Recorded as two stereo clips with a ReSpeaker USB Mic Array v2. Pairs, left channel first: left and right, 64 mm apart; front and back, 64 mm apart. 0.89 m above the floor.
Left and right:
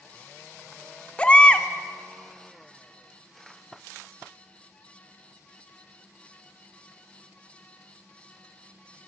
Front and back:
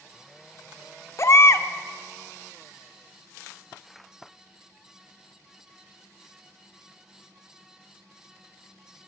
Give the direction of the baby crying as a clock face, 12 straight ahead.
11 o'clock.